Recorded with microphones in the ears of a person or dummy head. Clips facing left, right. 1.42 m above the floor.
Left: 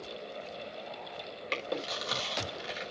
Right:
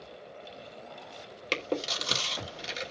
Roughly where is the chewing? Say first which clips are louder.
Right 4 dB; right.